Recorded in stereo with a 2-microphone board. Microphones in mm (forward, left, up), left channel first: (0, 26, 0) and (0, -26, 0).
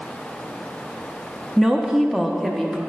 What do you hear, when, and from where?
1.6 s a woman speaking: 10° right (ahead or behind), 0.6 m; by 2.8 s centre (ahead or behind), 1.1 m